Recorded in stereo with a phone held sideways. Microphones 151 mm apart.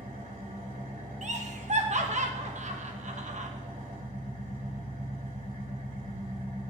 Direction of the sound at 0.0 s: 65° right (ahead or behind).